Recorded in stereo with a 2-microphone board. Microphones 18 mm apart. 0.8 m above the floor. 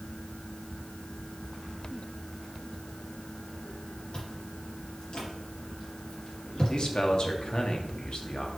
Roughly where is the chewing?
Left.